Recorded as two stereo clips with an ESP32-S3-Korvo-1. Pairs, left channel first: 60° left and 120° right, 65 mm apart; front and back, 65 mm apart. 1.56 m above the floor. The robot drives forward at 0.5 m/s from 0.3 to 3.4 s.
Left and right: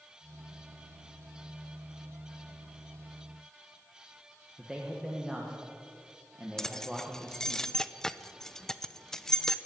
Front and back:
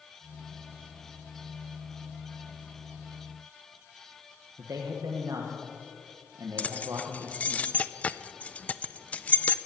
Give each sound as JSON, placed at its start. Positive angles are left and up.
{"t": 4.6, "sound": "a man speaking", "azimuth_deg": 160, "distance_m": 1.6}
{"t": 6.6, "sound": "keys jangling", "azimuth_deg": -10, "distance_m": 0.5}